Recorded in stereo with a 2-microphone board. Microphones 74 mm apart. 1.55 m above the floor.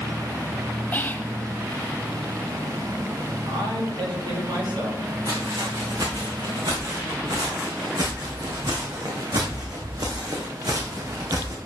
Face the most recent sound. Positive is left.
turn(degrees=-50)  # may be behind; listen again after turning